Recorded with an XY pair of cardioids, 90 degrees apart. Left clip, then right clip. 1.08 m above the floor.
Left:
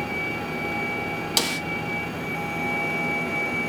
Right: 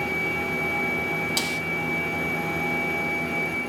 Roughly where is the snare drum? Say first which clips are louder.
Left 2 dB; ahead left.